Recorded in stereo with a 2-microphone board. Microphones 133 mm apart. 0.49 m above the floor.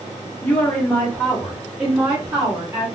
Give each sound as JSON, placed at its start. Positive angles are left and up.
{"t": 0.4, "sound": "a woman speaking", "side_deg": 15, "distance_m": 1.3}